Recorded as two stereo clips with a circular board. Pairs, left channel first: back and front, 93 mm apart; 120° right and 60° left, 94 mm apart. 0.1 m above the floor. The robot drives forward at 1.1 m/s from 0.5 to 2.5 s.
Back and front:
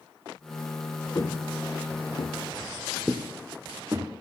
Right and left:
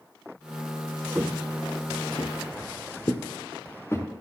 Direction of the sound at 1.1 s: 130° left.